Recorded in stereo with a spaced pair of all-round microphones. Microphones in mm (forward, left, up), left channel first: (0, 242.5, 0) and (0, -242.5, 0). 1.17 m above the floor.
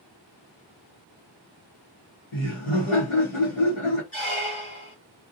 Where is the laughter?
85° left, 1.1 m.